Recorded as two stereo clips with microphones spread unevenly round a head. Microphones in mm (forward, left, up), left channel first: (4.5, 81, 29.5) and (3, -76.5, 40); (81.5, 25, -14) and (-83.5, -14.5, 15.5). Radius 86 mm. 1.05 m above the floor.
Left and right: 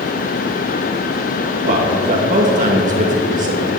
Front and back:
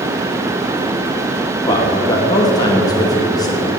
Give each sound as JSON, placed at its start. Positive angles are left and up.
{"t": 1.6, "sound": "a man speaking", "azimuth_deg": -50, "distance_m": 1.7}